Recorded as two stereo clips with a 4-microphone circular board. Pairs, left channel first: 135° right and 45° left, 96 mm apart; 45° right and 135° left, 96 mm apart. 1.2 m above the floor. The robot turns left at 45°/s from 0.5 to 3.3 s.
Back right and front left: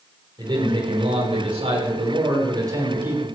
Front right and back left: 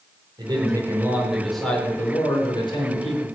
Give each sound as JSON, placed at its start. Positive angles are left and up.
{"t": 0.4, "sound": "a man speaking", "azimuth_deg": 90, "distance_m": 4.5}